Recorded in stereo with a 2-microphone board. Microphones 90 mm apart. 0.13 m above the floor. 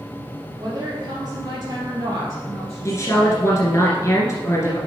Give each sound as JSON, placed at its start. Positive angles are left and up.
{"t": 0.6, "sound": "a woman speaking", "side_deg": -45, "distance_m": 3.5}
{"t": 2.9, "sound": "a woman speaking", "side_deg": 35, "distance_m": 1.6}